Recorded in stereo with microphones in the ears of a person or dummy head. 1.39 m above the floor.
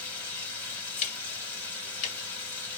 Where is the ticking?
40° left (ahead or behind), 2.5 m.